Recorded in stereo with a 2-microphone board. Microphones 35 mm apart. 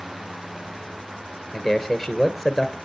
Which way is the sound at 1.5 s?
5° right (ahead or behind).